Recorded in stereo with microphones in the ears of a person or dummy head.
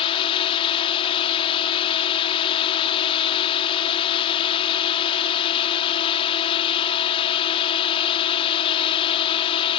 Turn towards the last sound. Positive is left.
turn(degrees=30)  # may be behind; listen again after turning